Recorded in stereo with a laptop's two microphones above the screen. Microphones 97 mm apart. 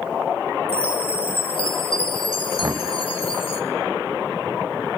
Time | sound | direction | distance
0.7 | a chime | 65° left (ahead or behind) | 1.9 m
2.6 | knocking | 30° right (ahead or behind) | 0.5 m